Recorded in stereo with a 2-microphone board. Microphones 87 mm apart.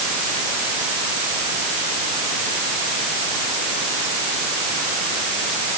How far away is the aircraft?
I don't hear an aircraft.